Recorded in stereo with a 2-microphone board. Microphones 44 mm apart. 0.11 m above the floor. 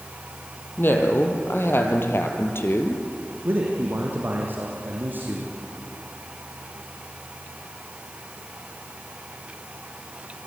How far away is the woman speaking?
About 4 m.